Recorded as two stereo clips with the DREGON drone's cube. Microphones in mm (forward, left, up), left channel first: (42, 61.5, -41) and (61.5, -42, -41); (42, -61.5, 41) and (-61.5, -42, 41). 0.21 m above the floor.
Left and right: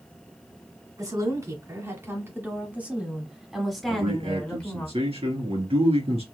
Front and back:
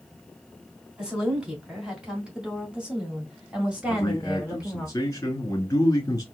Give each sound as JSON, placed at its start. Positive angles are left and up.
{"t": 1.0, "sound": "a woman speaking", "azimuth_deg": -110, "distance_m": 2.0}
{"t": 3.9, "sound": "a man speaking", "azimuth_deg": -70, "distance_m": 2.5}